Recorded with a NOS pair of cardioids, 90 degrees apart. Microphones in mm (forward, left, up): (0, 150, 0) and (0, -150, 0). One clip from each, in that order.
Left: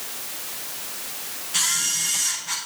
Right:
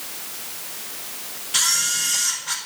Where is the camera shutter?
35° right, 5.5 m.